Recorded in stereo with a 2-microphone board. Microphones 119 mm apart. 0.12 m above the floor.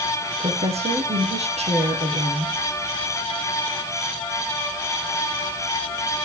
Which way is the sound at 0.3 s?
65° right (ahead or behind).